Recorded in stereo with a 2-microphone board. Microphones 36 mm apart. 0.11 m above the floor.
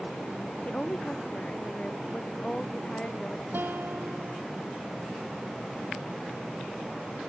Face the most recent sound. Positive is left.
turn(degrees=-70)  # may be behind; listen again after turning